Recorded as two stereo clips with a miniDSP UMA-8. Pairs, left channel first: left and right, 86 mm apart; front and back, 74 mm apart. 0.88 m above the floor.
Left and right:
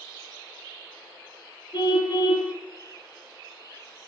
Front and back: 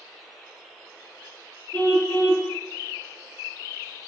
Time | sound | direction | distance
1.7 | a car horn | 65° left | 8 m